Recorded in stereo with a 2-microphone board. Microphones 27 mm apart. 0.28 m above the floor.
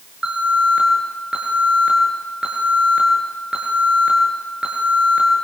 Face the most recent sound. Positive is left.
turn(degrees=-30)  # may be behind; listen again after turning